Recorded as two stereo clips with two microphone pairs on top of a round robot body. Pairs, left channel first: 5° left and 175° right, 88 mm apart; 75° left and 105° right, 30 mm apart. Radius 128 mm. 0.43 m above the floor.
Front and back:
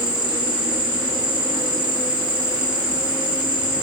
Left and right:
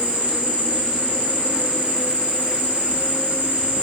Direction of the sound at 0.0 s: 130° right.